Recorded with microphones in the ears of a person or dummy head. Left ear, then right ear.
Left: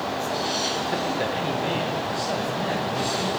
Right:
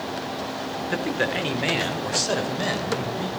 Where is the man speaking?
25° right (ahead or behind), 0.6 m; by 3.3 s 90° right, 1.6 m.